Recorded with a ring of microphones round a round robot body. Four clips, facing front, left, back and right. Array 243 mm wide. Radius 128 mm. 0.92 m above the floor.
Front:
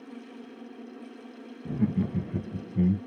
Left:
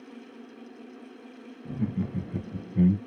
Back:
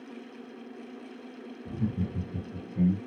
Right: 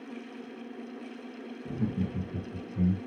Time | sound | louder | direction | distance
1.6 | laughter | left 1 dB, front 5 dB | 15° left | 0.8 m